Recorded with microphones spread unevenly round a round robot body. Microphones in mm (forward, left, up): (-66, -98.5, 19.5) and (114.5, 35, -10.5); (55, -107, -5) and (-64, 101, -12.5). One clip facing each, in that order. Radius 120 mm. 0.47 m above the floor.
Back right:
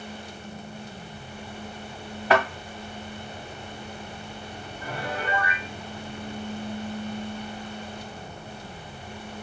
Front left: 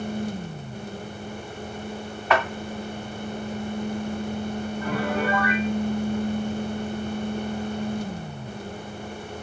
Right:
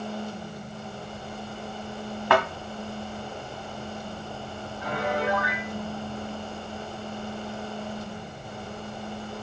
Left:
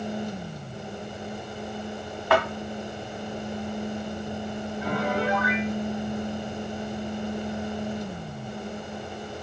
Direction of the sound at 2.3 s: 90° right.